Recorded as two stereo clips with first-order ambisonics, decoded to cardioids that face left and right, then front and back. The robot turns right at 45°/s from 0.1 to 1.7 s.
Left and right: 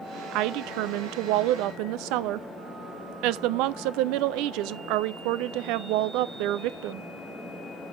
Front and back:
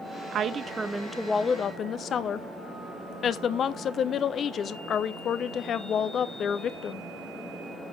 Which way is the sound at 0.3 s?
125° right.